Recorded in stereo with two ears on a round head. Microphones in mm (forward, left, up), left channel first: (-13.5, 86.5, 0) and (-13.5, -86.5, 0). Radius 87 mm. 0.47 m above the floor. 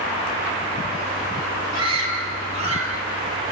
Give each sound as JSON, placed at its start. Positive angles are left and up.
{"t": 1.7, "sound": "a scream", "side_deg": -85, "distance_m": 9.0}